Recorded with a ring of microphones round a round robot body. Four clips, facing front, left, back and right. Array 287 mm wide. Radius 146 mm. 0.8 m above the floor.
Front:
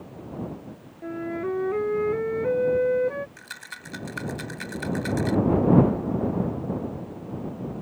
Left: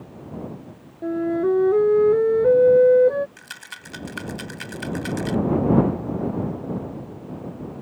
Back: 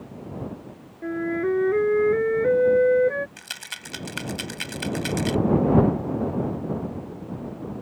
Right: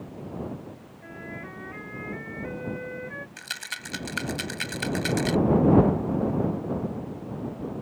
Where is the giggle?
I don't hear a giggle.